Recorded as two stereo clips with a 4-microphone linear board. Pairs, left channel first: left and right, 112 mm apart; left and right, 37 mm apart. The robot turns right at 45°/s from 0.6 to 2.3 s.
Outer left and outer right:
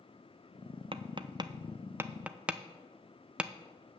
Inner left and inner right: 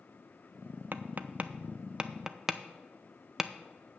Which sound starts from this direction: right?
Tapping, at 0.9 s.